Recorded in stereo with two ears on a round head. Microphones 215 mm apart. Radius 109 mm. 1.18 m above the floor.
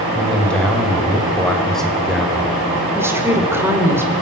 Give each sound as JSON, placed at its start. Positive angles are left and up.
{"t": 0.1, "sound": "a man speaking", "side_deg": 5, "distance_m": 6.0}
{"t": 3.0, "sound": "a woman speaking", "side_deg": -10, "distance_m": 4.0}